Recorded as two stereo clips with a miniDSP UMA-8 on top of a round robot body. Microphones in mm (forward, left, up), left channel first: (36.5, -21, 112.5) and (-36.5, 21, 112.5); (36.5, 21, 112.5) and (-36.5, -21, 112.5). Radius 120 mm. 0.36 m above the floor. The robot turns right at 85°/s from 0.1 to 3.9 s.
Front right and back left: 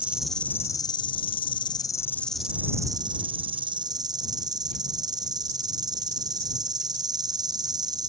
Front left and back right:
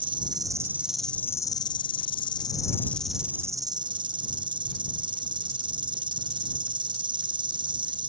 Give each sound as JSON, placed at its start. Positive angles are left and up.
{"t": 0.0, "sound": "an insect", "azimuth_deg": -135}